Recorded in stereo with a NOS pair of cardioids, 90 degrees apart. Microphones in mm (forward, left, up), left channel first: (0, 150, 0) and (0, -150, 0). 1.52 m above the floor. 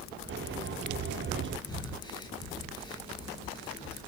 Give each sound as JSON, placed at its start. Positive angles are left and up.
{"t": 0.3, "sound": "a sliding door", "azimuth_deg": -40, "distance_m": 1.4}
{"t": 1.7, "sound": "breathing", "azimuth_deg": 15, "distance_m": 1.5}